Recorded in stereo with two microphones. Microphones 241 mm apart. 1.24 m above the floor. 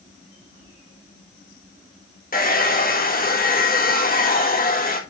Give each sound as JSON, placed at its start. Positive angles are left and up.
{"t": 2.3, "sound": "a hair dryer", "side_deg": 40, "distance_m": 1.7}